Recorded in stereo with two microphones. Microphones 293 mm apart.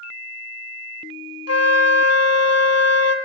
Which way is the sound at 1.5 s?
60° left (ahead or behind).